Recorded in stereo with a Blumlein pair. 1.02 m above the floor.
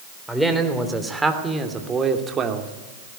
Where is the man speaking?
Straight ahead, 3.5 m; by 2.7 s 30° right, 2.5 m.